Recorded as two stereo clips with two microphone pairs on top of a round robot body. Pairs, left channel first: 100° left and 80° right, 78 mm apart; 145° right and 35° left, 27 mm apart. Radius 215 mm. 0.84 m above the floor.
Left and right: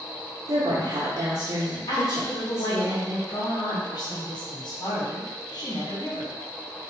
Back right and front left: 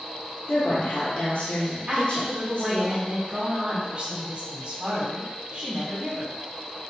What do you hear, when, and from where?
0.5 s a woman speaking: 115° right, 1.1 m
1.9 s a woman speaking: 85° left, 1.8 m